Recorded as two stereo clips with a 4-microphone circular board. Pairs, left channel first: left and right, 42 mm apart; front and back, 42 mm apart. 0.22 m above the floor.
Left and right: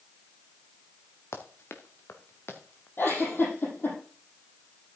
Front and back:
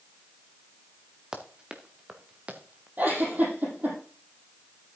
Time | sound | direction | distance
1.3 | running footsteps | 105° left | 2 m
3.0 | a giggle | 130° left | 6.5 m